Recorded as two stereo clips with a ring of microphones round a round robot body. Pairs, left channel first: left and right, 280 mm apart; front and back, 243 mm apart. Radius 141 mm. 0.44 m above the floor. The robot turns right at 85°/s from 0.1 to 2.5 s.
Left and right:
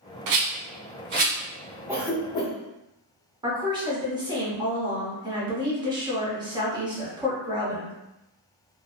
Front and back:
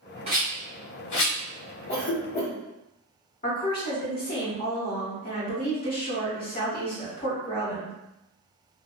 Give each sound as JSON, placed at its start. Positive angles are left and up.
{"t": 0.3, "sound": "a rattle", "azimuth_deg": -110, "distance_m": 1.0}
{"t": 1.9, "sound": "a cough", "azimuth_deg": -15, "distance_m": 1.2}
{"t": 3.4, "sound": "a woman speaking", "azimuth_deg": -25, "distance_m": 1.0}